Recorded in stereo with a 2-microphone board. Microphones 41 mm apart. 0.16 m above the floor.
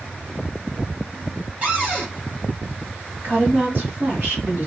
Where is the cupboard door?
30° right (ahead or behind), 1.6 m.